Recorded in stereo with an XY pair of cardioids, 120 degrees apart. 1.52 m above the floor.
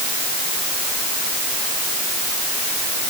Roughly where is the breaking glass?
I don't hear breaking glass.